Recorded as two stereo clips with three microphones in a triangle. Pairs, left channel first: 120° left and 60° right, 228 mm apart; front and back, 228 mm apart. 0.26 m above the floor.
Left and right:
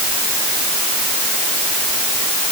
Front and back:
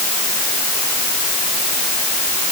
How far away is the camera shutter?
I don't hear a camera shutter.